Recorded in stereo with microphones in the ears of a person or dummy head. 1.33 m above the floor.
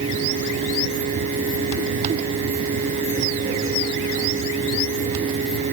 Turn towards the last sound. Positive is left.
No sound to turn to.